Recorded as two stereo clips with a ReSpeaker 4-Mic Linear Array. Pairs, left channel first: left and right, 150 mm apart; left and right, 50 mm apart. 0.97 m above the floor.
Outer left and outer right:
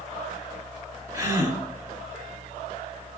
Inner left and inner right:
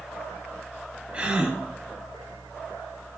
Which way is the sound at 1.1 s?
25° right (ahead or behind).